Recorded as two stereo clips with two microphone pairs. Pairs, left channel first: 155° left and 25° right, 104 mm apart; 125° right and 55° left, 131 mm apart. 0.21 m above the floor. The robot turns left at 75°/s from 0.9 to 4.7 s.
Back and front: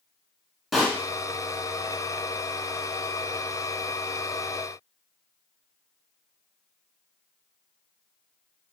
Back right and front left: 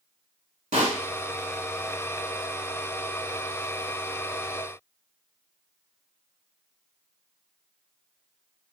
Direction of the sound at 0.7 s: 65° left.